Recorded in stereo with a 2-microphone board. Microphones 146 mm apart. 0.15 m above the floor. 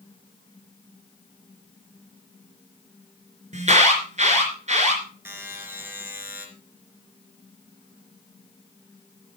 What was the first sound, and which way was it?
An alarm, 55° right (ahead or behind).